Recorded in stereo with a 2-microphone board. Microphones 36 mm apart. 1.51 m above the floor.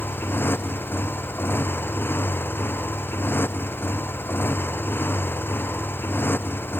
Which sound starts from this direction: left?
A motorcycle, at 0.0 s.